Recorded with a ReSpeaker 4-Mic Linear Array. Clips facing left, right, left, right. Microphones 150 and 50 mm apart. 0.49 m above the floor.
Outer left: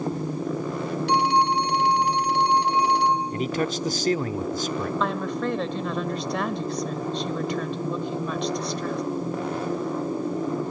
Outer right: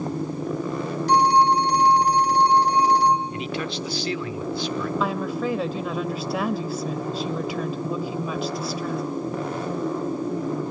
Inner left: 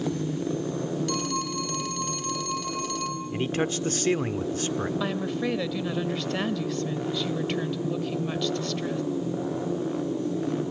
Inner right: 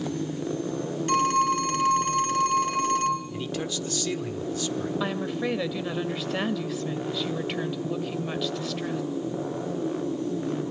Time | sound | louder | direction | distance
1.1 | a phone ringing | outer right 4 dB, inner right 7 dB | 40° right (ahead or behind) | 3 m
3.3 | a man speaking | outer left 3 dB, inner left 4 dB | 45° left (ahead or behind) | 1.0 m
5.0 | a woman speaking | outer right 1 dB, even | 5° right (ahead or behind) | 1.6 m